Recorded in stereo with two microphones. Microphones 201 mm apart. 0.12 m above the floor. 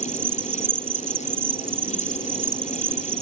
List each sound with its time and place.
0.0 s an insect: 30° right (ahead or behind)